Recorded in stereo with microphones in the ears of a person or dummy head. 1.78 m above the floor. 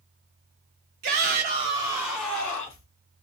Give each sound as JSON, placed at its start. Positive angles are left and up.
{"t": 1.0, "sound": "a shout", "side_deg": -45, "distance_m": 0.7}